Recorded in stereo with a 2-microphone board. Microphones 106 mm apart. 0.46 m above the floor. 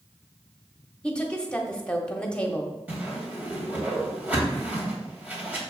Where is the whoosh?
15° right (ahead or behind), 2.5 m.